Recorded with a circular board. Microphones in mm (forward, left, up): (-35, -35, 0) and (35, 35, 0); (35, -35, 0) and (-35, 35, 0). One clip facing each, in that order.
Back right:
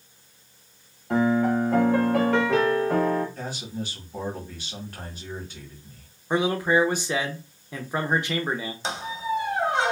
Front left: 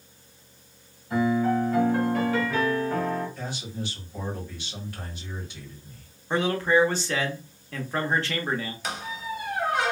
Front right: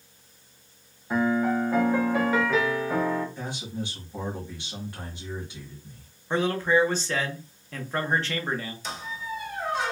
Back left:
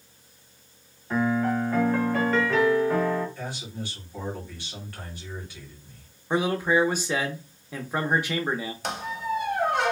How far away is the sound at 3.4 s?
About 1.4 m.